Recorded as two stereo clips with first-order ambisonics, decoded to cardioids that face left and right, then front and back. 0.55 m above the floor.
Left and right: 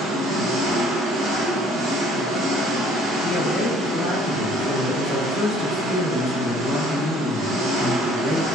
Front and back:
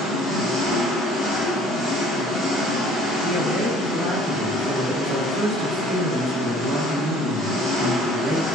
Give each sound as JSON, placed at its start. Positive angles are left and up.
{"t": 0.0, "sound": "an engine running", "azimuth_deg": -75, "distance_m": 1.3}
{"t": 3.2, "sound": "a woman speaking", "azimuth_deg": 140, "distance_m": 0.6}